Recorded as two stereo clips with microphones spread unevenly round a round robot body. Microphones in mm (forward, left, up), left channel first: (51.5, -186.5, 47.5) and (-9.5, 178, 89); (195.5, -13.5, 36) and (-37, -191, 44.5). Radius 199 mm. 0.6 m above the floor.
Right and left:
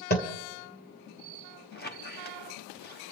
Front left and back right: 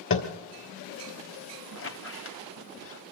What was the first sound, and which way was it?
Tapping, 10° right.